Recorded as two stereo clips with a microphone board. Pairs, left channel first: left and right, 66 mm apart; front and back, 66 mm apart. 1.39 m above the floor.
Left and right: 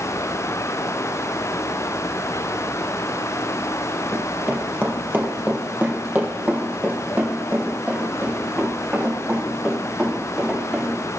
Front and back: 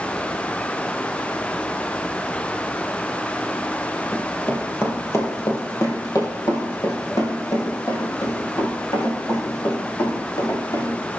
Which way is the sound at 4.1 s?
50° right.